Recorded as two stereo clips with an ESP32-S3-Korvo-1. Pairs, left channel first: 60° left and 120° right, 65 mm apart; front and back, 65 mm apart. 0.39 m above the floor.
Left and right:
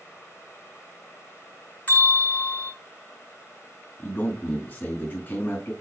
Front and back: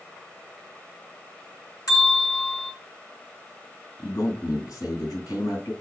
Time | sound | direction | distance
1.9 | a bell | 5° right | 4 m
4.0 | a man speaking | straight ahead | 3.5 m